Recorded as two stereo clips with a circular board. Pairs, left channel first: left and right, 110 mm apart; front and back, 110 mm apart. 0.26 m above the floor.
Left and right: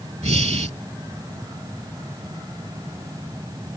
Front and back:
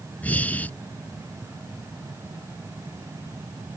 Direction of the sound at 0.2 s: 75° right.